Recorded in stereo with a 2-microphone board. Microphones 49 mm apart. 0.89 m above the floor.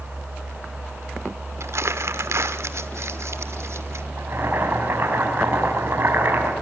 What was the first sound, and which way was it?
Crumpling, 75° right (ahead or behind).